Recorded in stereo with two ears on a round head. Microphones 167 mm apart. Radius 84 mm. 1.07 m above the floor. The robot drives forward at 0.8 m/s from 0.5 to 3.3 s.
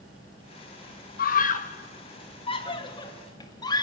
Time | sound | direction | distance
1.2 | a scream | 50° left (ahead or behind) | 1.2 m